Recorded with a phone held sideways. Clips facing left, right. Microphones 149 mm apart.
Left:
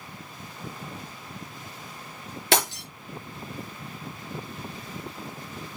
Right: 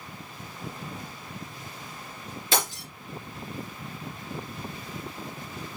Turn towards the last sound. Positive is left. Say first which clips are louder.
# left 4 dB
turn(degrees=75)  # may be behind; listen again after turning